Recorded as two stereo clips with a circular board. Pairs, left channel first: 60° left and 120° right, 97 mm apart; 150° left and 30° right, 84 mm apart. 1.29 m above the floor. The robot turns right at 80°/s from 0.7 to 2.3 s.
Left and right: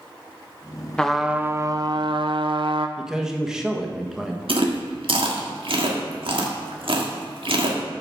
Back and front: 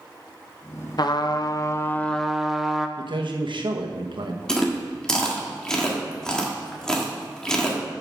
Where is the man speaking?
35° right, 1.3 m.